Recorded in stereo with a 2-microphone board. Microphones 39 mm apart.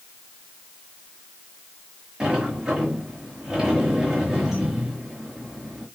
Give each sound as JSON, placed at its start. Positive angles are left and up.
{"t": 2.2, "sound": "a sliding door", "side_deg": -15, "distance_m": 5.5}